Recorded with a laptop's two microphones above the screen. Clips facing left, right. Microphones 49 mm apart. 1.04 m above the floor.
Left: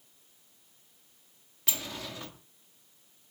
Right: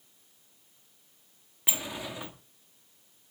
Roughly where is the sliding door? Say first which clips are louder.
Right 2 dB; centre.